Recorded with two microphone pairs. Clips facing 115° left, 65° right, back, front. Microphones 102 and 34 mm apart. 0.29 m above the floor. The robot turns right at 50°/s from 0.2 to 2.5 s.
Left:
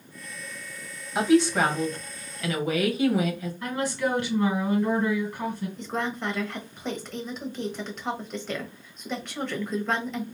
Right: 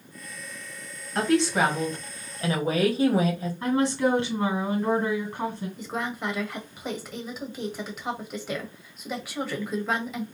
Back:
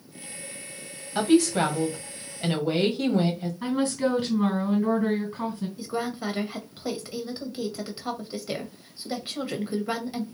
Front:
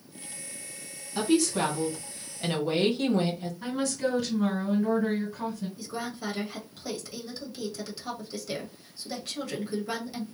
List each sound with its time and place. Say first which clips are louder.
1.1 s a woman speaking: left 2 dB, back 4 dB; 170° right, 1.8 m; by 3.5 s 105° right, 1.8 m
3.6 s a woman speaking: right 5 dB, back 4 dB; 125° right, 3 m
5.8 s a woman speaking: even, back 5 dB; 145° right, 1.3 m